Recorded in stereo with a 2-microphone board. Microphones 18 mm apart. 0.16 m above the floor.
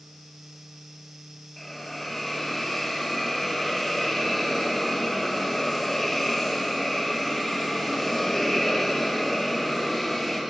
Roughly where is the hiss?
Centre.